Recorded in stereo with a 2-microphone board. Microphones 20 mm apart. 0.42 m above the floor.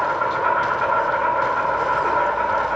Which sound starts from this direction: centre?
An insect, at 0.0 s.